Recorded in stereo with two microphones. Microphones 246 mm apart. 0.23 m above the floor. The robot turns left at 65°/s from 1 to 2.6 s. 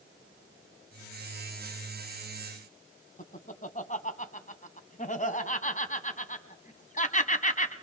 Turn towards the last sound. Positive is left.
turn(degrees=30)  # may be behind; listen again after turning